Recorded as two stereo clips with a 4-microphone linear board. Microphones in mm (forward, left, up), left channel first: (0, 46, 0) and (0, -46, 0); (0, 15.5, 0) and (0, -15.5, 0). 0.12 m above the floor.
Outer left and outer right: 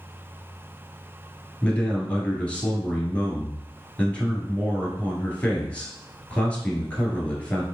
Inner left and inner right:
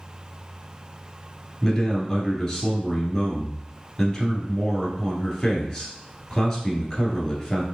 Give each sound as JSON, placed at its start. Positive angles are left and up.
{"t": 1.6, "sound": "a man speaking", "side_deg": 15, "distance_m": 1.7}